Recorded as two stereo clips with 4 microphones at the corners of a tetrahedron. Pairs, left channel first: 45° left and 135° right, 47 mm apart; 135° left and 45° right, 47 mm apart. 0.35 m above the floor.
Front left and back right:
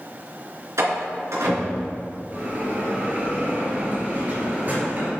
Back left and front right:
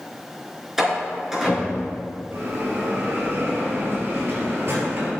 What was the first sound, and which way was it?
A door slam, 125° right.